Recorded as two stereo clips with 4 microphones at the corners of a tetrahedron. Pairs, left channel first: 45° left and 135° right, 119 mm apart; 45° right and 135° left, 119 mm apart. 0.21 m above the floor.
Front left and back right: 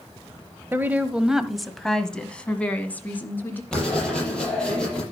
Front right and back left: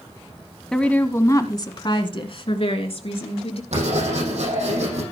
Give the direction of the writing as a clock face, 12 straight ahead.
8 o'clock.